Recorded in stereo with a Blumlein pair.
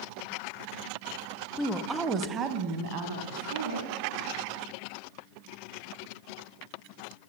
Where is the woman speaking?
10° left, 0.5 m; by 3.9 s 60° right, 1.2 m.